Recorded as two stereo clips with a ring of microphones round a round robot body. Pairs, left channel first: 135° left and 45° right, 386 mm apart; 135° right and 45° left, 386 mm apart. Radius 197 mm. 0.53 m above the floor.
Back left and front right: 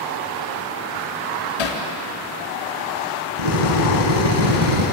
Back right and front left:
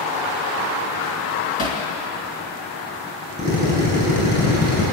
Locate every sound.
1.6 s hammering: 155° left, 3.5 m
3.4 s a drill: 70° right, 8.5 m